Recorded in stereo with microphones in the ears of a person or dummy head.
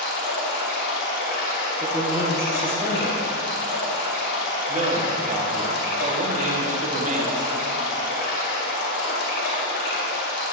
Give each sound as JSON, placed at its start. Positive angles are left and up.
{"t": 0.0, "sound": "running water", "side_deg": 70, "distance_m": 2.5}
{"t": 1.8, "sound": "a man speaking", "side_deg": -10, "distance_m": 1.1}
{"t": 4.7, "sound": "a man speaking", "side_deg": -30, "distance_m": 0.8}